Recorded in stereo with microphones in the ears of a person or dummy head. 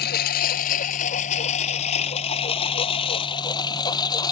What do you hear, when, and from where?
0.0 s a lawn mower: 55° left (ahead or behind); by 4.3 s 25° left (ahead or behind)